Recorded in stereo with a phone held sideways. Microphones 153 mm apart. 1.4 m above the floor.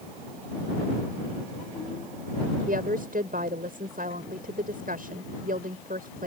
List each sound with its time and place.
2.7 s a woman speaking: 70° right (ahead or behind)